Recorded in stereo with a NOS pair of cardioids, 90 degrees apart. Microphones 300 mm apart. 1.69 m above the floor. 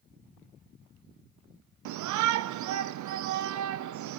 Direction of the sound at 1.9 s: 70° right.